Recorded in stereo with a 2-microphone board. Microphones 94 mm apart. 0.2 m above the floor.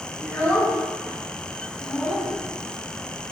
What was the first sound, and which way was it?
A child speaking, 20° left (ahead or behind).